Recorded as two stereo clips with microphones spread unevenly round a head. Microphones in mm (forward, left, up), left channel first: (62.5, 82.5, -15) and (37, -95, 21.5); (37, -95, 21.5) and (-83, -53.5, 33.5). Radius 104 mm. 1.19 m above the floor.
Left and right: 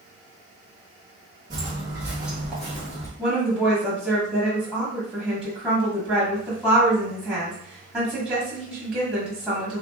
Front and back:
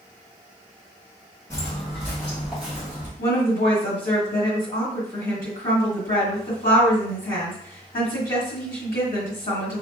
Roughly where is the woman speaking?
Ahead.